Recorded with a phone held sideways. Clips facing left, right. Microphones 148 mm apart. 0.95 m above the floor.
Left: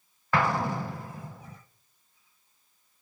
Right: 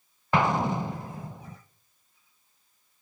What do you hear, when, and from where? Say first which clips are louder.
0.3 s an explosion: right 2 dB; 20° right (ahead or behind), 0.5 m